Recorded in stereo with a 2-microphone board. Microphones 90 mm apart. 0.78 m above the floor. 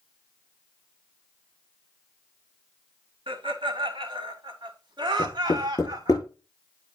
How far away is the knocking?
About 7 m.